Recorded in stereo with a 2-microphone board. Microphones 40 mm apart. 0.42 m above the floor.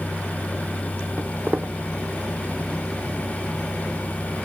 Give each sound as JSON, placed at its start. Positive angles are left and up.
{"t": 1.2, "sound": "footsteps", "side_deg": -40, "distance_m": 0.8}